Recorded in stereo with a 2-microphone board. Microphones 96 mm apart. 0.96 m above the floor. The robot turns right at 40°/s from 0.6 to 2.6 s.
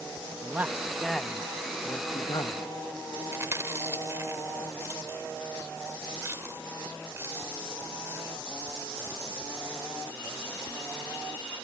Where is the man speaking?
20° right; by 2.7 s 60° left.